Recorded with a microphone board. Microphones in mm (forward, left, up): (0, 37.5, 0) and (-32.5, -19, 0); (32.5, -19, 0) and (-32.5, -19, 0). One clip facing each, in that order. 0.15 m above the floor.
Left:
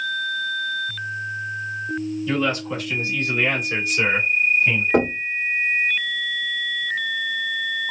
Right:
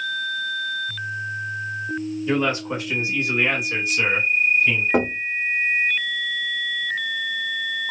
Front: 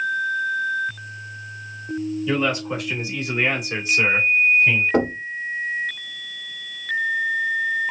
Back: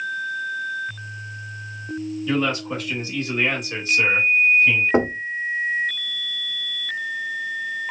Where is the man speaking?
85° right, 1.4 m; by 4.8 s 35° left, 1.2 m.